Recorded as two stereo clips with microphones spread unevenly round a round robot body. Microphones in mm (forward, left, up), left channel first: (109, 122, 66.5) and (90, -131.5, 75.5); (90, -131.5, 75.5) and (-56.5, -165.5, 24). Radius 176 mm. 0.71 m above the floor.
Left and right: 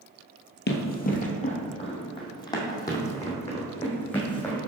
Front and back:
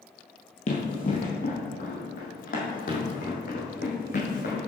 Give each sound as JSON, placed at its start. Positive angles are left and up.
{"t": 0.7, "sound": "running footsteps", "azimuth_deg": 40, "distance_m": 1.3}